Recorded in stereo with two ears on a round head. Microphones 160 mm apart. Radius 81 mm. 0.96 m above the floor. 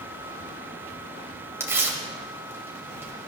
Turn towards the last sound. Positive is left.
turn(degrees=-15)  # may be behind; listen again after turning